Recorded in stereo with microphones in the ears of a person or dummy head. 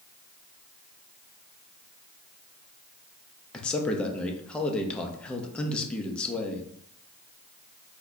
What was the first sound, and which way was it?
A man speaking, 10° left (ahead or behind).